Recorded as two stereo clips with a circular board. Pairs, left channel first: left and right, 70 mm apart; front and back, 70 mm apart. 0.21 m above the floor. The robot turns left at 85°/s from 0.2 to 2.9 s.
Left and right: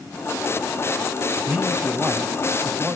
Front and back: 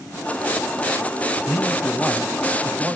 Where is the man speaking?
20° right, 1.4 m; by 3.0 s 140° right, 1.4 m.